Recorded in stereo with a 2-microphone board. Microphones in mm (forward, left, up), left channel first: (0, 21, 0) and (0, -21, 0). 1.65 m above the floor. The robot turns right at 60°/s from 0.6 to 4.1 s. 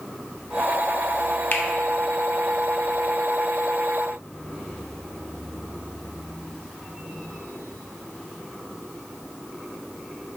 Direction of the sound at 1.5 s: 55° left (ahead or behind).